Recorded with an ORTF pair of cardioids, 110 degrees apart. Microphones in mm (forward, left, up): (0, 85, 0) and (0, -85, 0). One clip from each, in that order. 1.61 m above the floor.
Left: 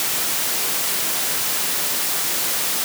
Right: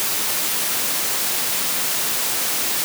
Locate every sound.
Only background noise.